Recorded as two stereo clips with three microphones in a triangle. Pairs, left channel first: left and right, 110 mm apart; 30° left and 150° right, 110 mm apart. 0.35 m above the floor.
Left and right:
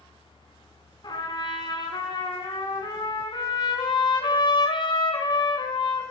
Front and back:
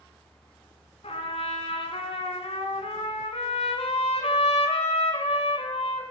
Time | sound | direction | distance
1.0 | a trumpet | 45° left | 2 m